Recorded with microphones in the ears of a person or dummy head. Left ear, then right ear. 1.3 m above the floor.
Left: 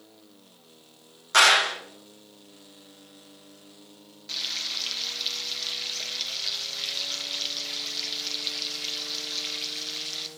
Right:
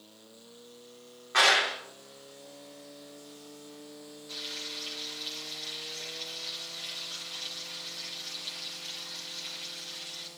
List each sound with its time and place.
1.3 s a clap: 90° left, 2.5 m
4.3 s frying: 35° left (ahead or behind), 1.2 m